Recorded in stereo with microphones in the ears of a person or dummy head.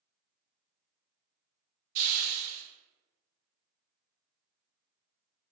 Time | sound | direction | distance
1.9 | a hiss | 40° right (ahead or behind) | 1.1 m